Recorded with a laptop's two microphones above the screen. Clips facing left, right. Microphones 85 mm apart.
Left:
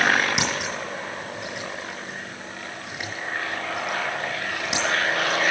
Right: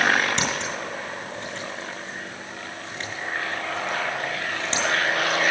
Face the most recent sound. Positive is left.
turn(degrees=15)  # may be behind; listen again after turning